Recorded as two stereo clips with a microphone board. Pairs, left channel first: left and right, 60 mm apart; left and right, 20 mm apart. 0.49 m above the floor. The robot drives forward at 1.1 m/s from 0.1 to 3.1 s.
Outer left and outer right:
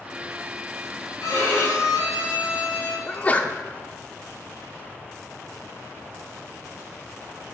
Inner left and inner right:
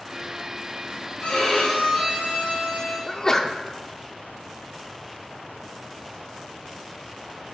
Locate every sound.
1.2 s a violin: 80° left, 3.5 m; by 3.0 s 55° left (ahead or behind), 4.5 m
3.1 s a sneeze: 25° left (ahead or behind), 0.7 m